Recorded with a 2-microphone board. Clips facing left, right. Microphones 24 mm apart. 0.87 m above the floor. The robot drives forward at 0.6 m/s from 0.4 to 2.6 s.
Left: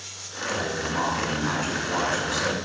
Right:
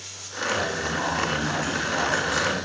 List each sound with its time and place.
0.5 s a man speaking: 20° left (ahead or behind), 8 m; by 2.5 s 25° left (ahead or behind), 6.5 m